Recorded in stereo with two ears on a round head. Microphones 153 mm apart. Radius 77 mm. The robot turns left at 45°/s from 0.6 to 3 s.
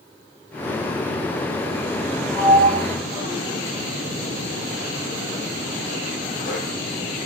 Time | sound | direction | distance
2.3 | a sliding door | centre (ahead or behind) | 7 m